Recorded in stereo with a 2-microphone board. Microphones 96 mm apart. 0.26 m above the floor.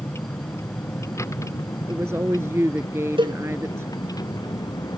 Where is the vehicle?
25° left (ahead or behind); by 5.0 s 45° left (ahead or behind).